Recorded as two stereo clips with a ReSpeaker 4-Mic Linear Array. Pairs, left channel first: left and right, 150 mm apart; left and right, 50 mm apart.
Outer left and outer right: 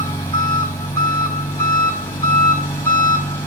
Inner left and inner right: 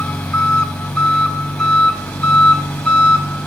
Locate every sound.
0.0 s an engine running: 20° left (ahead or behind), 6.5 m